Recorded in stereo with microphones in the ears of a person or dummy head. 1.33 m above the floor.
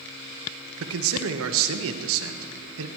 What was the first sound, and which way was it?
A man speaking, 80° right.